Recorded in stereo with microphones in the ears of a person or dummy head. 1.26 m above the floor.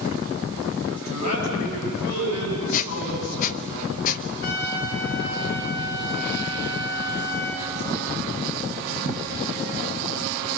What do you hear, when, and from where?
0.9 s a man speaking: 80° left, 9 m; by 3.7 s 85° left, 10.5 m
2.7 s a squeak: 45° left (ahead or behind), 0.9 m
4.4 s a trumpet: 70° left (ahead or behind), 4.5 m